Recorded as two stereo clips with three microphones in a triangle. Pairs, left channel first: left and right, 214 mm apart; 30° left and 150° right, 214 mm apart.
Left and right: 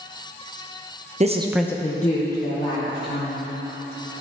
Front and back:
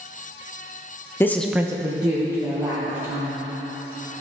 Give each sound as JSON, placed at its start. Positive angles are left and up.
{"t": 1.2, "sound": "a woman speaking", "azimuth_deg": -45, "distance_m": 0.7}